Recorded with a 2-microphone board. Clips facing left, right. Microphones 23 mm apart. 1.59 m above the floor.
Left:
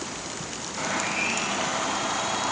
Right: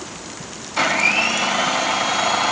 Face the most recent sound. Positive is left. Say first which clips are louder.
# right 11 dB
turn(degrees=-60)  # may be behind; listen again after turning